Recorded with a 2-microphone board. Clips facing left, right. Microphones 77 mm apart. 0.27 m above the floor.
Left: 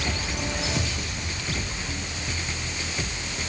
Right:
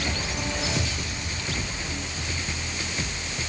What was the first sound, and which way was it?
Only background noise.